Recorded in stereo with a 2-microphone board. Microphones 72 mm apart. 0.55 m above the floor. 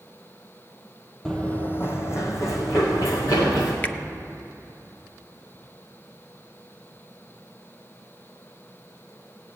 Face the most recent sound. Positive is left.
turn(degrees=20)  # may be behind; listen again after turning